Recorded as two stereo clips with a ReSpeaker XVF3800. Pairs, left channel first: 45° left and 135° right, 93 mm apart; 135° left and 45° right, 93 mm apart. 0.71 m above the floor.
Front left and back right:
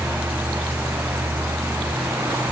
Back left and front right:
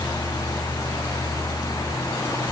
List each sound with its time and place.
Only background noise.